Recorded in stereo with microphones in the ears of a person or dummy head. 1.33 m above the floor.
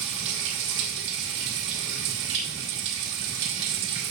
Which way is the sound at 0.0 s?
60° right (ahead or behind).